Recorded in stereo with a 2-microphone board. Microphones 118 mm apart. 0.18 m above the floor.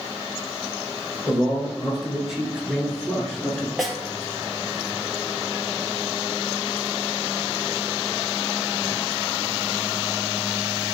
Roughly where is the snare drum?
Centre.